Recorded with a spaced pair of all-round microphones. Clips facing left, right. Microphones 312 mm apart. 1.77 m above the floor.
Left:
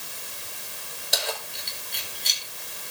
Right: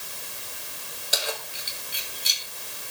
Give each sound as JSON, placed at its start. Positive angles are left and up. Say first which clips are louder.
{"t": 1.1, "sound": "keys jangling", "louder": "even", "side_deg": -5, "distance_m": 4.5}